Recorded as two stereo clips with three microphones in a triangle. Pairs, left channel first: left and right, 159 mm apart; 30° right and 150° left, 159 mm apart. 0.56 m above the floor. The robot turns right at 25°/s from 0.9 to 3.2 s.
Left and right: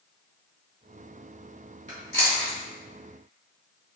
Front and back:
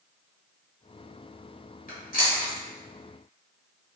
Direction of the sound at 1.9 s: 50° right.